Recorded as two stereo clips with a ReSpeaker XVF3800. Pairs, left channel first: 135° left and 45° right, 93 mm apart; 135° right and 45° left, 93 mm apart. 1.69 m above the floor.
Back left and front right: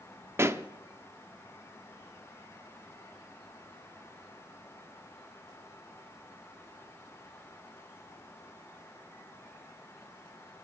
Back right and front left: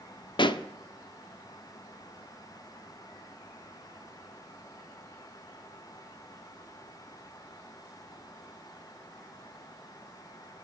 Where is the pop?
105° right, 0.6 m.